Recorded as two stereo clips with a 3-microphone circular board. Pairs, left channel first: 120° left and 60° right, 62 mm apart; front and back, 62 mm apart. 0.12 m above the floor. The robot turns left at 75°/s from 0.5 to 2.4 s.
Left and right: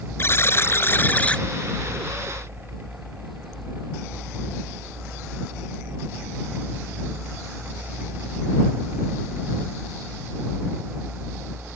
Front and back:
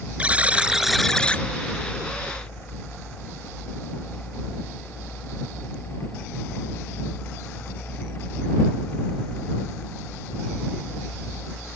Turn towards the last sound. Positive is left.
turn(degrees=-20)